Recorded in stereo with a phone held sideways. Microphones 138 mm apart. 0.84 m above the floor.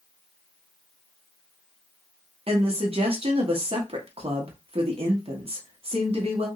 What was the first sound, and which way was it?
A woman speaking, 45° right (ahead or behind).